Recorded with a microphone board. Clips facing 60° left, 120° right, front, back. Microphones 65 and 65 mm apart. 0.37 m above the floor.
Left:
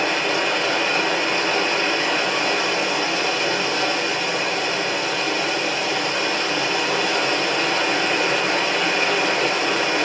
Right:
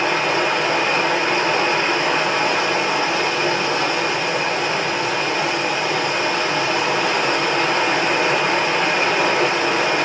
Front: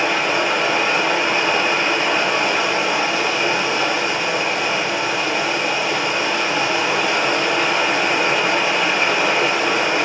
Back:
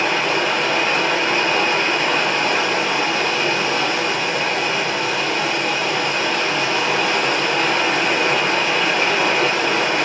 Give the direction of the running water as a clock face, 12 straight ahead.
2 o'clock.